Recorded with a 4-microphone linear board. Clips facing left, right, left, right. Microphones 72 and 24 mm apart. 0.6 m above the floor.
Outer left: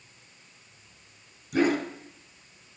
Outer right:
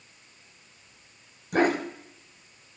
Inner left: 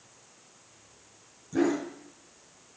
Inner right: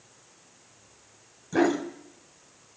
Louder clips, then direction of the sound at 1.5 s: Outer right 1 dB, inner right 3 dB; 60° right (ahead or behind).